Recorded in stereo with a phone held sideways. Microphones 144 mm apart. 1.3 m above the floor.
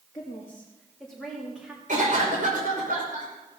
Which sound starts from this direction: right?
A cough, at 1.9 s.